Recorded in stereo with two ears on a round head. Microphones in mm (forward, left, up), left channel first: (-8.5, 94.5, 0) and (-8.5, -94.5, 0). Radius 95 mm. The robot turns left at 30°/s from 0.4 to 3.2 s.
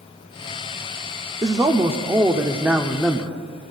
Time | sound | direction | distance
1.4 | a man speaking | 15° right (ahead or behind) | 0.7 m